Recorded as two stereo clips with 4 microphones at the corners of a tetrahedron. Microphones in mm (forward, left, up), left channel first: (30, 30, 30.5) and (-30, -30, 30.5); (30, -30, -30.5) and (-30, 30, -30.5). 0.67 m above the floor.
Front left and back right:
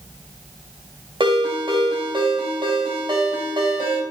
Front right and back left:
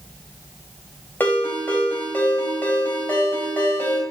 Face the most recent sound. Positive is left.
turn(degrees=-115)